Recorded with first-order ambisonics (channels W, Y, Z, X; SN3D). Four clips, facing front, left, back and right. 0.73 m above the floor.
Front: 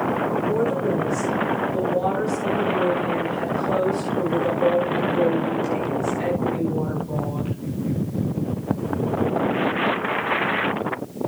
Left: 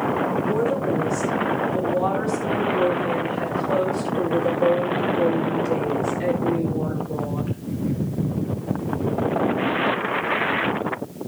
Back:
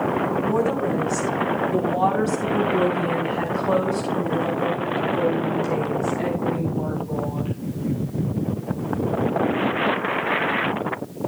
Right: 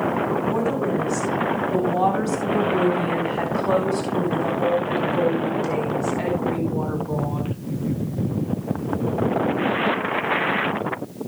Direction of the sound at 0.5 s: 145° right.